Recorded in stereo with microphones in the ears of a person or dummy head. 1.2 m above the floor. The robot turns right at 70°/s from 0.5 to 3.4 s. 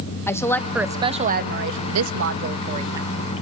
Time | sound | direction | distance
0.3 | a woman speaking | 165° left | 1.1 m